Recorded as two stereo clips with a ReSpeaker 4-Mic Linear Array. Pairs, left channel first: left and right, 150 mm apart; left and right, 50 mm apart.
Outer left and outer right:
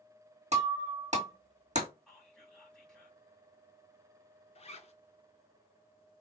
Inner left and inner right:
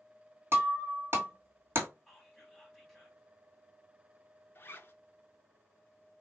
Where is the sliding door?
No sliding door in this recording.